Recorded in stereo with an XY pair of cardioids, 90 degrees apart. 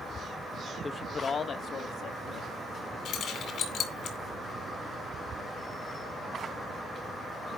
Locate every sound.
0.8 s a man speaking: 25° left, 0.7 m; by 3.0 s 80° left, 2 m
3.0 s keys jangling: 70° left, 2.5 m